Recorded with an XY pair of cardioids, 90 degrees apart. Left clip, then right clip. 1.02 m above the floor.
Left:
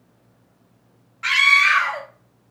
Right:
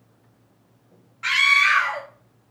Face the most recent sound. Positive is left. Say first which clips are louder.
# left 2 dB
turn(degrees=15)